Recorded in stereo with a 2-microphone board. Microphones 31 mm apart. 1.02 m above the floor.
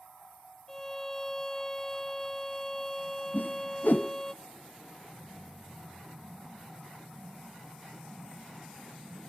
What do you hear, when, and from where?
0.7 s a violin: 15° left (ahead or behind), 0.8 m
3.3 s a whoosh: 70° left (ahead or behind), 0.6 m